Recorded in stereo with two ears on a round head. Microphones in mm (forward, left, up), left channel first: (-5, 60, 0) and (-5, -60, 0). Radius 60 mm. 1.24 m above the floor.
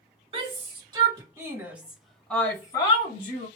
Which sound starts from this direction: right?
A shout, at 0.3 s.